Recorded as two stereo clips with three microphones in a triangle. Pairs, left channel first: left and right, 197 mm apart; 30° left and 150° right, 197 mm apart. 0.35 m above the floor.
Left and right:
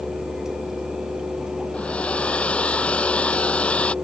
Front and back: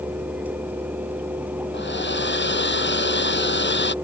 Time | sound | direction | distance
1.7 | a hair dryer | 5° left | ?